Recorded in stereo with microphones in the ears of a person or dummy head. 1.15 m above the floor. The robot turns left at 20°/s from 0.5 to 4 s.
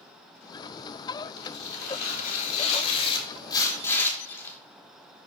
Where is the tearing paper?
65° left, 3.5 m; by 4.6 s 15° left, 3.5 m.